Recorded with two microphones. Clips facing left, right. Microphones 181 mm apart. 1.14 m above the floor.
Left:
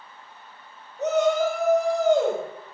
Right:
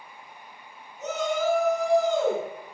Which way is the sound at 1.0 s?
65° left (ahead or behind).